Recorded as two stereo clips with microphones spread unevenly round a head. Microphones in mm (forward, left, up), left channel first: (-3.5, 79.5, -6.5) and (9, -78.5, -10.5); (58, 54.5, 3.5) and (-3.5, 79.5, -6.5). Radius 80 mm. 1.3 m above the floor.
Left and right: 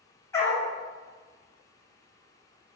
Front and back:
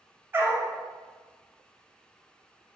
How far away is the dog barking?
About 0.9 m.